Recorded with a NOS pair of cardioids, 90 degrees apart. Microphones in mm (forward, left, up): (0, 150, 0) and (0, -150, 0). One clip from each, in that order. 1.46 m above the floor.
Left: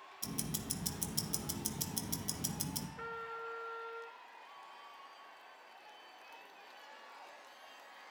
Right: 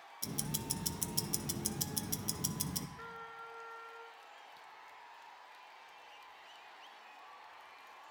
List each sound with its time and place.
0.2 s ticking: 10° right, 0.6 m
3.0 s a trumpet: 20° left, 0.8 m